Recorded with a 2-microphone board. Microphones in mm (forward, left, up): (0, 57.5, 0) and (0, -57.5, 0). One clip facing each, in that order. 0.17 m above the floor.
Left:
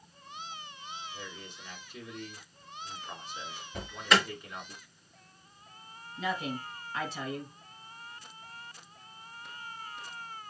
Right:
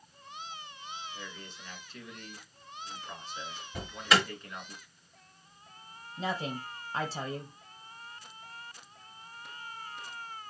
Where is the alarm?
5° right (ahead or behind), 3.5 m.